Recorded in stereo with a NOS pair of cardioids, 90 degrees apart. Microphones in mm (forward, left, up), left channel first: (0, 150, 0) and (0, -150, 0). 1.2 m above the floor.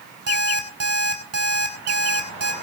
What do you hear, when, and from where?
0.3 s an alarm clock: 55° right, 6 m